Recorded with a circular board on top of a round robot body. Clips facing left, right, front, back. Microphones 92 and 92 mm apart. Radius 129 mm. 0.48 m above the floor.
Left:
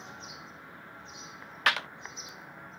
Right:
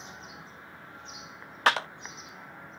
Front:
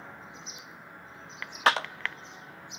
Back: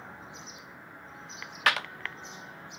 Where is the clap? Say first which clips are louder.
Right 4 dB, front 3 dB; 45° right, 0.7 m.